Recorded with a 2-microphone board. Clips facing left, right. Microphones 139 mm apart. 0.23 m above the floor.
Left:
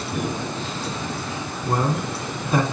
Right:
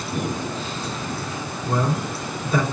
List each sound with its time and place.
1.6 s a man speaking: 50° left (ahead or behind), 2.5 m